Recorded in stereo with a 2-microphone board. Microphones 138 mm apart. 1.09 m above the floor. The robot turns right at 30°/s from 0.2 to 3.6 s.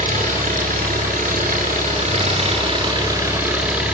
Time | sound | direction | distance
0.0 | an engine running | 115° right | 9 m